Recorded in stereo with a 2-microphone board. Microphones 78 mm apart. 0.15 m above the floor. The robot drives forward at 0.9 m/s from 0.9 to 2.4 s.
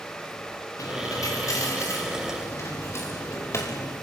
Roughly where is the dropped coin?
Left.